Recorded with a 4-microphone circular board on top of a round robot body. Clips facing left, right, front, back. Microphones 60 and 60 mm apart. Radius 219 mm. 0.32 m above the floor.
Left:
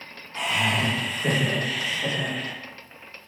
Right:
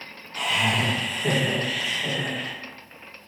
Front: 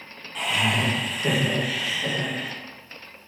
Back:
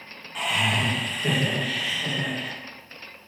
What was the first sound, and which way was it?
Laughter, 95° left.